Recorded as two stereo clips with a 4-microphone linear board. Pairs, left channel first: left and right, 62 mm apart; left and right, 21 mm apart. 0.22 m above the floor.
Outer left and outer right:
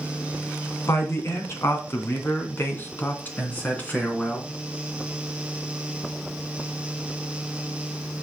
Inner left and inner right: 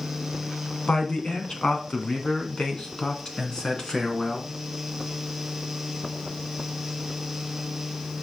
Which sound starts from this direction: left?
A man speaking, at 0.9 s.